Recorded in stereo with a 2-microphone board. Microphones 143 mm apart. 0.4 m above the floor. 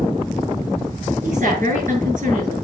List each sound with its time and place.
1.2 s a woman speaking: 65° right (ahead or behind), 6 m